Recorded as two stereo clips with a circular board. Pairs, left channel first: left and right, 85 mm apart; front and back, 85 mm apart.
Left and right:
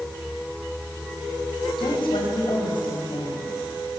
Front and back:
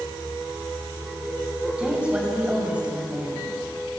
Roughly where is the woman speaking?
Left.